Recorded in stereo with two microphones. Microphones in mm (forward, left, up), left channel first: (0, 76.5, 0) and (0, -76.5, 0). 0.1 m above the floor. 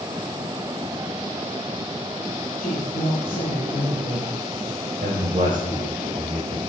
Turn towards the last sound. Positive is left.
turn(degrees=-60)  # may be behind; listen again after turning